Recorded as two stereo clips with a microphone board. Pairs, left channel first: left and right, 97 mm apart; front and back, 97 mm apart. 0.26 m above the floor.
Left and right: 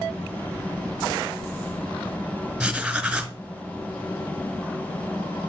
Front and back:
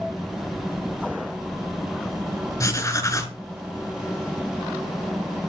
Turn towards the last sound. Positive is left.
turn(degrees=-15)